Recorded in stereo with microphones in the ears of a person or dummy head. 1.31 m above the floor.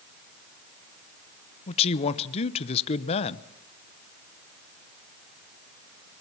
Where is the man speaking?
35° left (ahead or behind), 0.9 m.